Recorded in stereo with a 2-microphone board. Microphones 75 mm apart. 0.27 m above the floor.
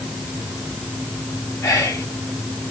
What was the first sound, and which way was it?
Whispering, 40° left (ahead or behind).